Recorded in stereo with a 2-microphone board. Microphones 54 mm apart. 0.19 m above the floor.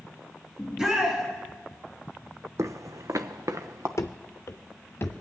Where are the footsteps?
75° right (ahead or behind), 0.5 m.